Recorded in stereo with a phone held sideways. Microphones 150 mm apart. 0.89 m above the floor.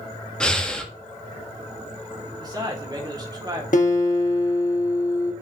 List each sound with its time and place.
0.4 s breathing: 5° left (ahead or behind), 0.9 m
2.4 s a man speaking: 30° right (ahead or behind), 1.8 m
3.7 s a guitar: 65° left (ahead or behind), 1.4 m